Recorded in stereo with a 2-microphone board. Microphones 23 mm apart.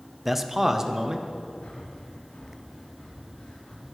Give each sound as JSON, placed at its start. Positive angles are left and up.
{"t": 0.2, "sound": "a man speaking", "side_deg": -10, "distance_m": 0.7}
{"t": 1.6, "sound": "breathing", "side_deg": 85, "distance_m": 3.0}